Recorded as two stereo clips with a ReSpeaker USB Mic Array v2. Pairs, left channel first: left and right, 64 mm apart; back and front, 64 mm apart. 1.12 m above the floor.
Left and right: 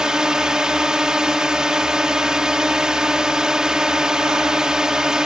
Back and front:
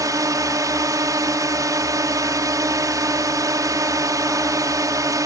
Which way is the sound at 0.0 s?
10° right.